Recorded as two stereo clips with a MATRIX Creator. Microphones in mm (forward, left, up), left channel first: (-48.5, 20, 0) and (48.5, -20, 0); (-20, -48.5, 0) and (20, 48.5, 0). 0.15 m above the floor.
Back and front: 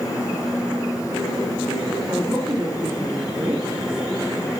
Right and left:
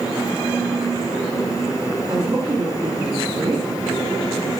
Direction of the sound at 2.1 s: 20° left.